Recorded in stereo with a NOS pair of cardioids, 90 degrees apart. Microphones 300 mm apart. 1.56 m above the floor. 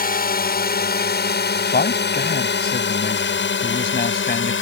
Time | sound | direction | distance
0.0 | a drone | 30° left | ?
1.7 | a man speaking | 30° left | ?